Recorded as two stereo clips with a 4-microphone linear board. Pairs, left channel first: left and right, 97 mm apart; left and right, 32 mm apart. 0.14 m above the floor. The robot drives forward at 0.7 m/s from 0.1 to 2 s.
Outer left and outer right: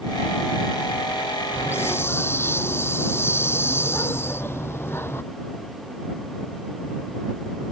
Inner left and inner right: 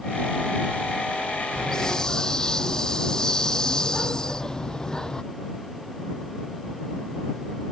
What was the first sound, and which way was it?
A hiss, 25° left (ahead or behind).